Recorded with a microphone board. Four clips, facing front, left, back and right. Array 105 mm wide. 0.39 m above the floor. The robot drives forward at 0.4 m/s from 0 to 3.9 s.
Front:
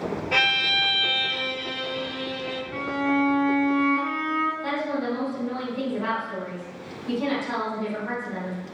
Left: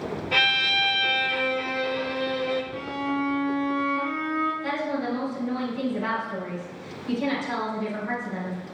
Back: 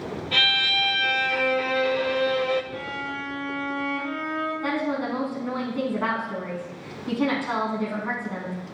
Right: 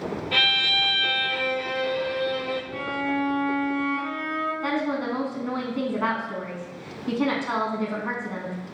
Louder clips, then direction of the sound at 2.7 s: Right 1 dB, front 8 dB; 10° right.